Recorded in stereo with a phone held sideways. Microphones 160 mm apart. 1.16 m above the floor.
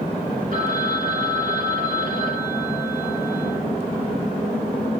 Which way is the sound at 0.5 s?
55° right (ahead or behind).